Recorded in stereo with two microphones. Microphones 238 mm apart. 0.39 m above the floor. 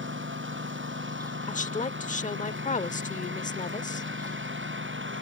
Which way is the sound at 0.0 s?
60° right (ahead or behind).